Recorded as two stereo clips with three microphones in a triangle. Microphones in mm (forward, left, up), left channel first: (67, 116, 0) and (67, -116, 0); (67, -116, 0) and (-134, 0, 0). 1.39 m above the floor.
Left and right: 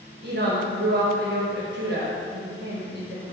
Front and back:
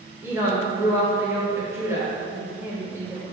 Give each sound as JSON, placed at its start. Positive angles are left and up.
{"t": 0.2, "sound": "a woman speaking", "azimuth_deg": -130, "distance_m": 1.2}